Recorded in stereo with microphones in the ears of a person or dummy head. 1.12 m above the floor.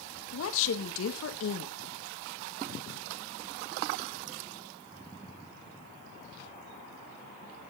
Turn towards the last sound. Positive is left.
turn(degrees=70)  # may be behind; listen again after turning